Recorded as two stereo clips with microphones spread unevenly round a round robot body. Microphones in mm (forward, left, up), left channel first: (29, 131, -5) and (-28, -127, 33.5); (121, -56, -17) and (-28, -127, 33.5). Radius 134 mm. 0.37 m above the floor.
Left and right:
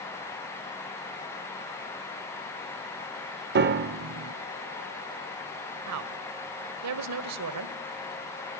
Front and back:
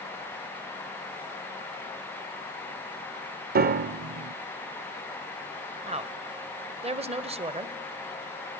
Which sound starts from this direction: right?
A woman speaking, at 5.9 s.